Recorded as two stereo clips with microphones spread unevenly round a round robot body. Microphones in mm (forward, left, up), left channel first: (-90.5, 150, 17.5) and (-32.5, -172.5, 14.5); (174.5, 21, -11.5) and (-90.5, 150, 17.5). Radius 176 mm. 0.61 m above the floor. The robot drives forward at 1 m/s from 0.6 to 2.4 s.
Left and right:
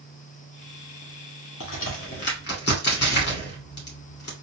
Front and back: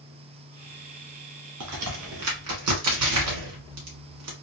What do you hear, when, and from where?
1.6 s a crack: 140° left, 1.6 m; by 4.3 s 155° left, 2 m